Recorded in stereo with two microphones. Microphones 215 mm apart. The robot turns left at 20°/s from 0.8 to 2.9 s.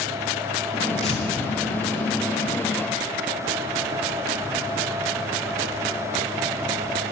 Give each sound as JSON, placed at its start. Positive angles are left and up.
{"t": 1.0, "sound": "tearing paper", "side_deg": 30, "distance_m": 3.0}